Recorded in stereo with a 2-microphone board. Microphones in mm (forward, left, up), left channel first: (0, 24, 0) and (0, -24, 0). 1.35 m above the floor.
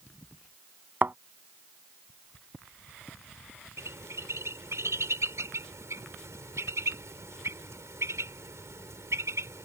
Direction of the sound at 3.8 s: 80° right.